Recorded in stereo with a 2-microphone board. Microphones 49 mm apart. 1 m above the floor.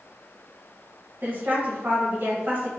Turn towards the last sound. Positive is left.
turn(degrees=-45)  # may be behind; listen again after turning